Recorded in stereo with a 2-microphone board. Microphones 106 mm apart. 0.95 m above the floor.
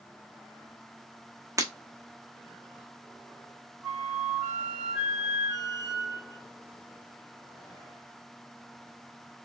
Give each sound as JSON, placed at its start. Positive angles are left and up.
{"t": 1.6, "sound": "breaking glass", "side_deg": -30, "distance_m": 1.0}
{"t": 3.8, "sound": "a flute", "side_deg": -25, "distance_m": 2.5}